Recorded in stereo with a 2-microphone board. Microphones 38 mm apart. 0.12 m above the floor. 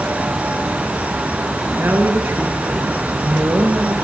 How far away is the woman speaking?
About 8 m.